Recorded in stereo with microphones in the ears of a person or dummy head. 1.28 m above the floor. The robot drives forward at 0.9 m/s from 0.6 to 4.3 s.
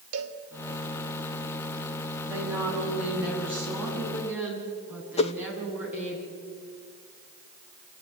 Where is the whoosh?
30° left (ahead or behind), 0.9 m.